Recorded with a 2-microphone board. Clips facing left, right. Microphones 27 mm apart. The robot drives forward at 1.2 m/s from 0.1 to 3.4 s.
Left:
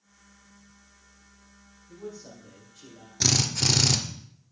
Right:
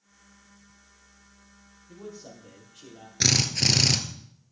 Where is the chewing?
I don't hear chewing.